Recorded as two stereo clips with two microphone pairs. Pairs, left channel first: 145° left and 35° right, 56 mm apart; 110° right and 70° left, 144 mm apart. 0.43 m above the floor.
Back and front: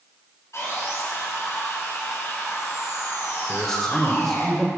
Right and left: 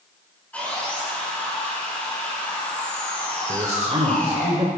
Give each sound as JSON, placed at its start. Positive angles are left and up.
{"t": 0.5, "sound": "sawing", "azimuth_deg": 170, "distance_m": 6.0}
{"t": 3.5, "sound": "a man speaking", "azimuth_deg": 65, "distance_m": 1.7}